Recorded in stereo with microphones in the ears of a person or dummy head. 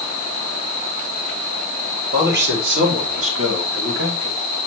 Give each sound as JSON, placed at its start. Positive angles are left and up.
{"t": 2.1, "sound": "a man speaking", "side_deg": -60, "distance_m": 3.5}